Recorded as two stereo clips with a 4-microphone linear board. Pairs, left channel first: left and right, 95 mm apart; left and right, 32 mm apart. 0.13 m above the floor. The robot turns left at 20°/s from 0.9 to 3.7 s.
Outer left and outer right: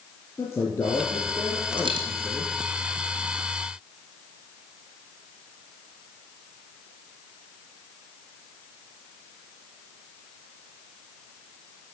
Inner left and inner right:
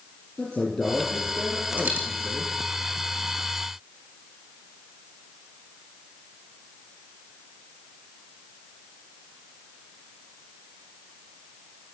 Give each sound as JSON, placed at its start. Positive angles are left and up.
{"t": 0.4, "sound": "a man speaking", "azimuth_deg": 35, "distance_m": 3.0}
{"t": 1.8, "sound": "a dropped coin", "side_deg": -60, "distance_m": 2.5}